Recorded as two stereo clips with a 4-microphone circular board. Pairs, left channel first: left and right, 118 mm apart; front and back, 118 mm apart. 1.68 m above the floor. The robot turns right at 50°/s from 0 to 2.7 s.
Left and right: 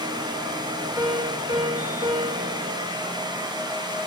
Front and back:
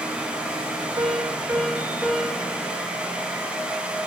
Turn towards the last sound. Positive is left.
turn(degrees=-60)